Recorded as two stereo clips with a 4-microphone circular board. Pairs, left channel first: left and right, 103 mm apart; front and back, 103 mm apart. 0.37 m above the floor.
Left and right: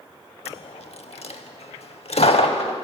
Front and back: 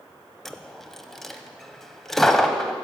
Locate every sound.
0.5 s a dropped coin: 85° left, 0.6 m